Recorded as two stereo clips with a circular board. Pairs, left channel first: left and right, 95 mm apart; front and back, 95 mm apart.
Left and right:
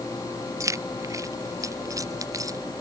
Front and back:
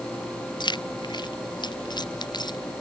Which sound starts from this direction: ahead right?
Keys jangling, at 0.6 s.